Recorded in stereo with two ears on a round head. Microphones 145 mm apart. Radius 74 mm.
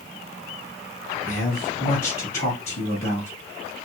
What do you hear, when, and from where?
1.2 s a man speaking: 55° left (ahead or behind), 2 m